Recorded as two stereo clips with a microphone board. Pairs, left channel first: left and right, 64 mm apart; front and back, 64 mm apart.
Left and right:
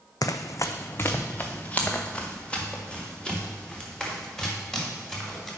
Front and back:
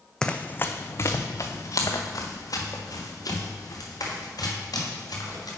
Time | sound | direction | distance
0.2 | running footsteps | 80° left | 0.6 m